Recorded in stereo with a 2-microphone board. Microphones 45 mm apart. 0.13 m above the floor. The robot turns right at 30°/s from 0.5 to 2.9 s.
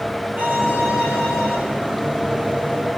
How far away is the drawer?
I don't hear a drawer.